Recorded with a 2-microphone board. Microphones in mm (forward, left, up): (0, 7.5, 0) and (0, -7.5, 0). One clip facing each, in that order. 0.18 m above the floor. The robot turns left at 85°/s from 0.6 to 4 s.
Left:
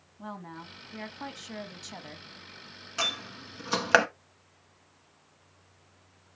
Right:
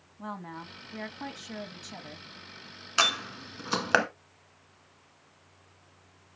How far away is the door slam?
About 1.2 m.